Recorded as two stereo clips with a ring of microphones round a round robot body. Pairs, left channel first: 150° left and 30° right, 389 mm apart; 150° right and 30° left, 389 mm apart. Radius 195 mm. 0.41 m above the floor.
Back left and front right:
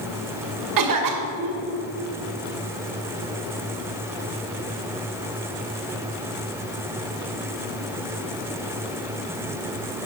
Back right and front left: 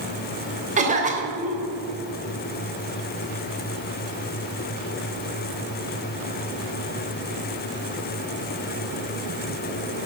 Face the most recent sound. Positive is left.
turn(degrees=-35)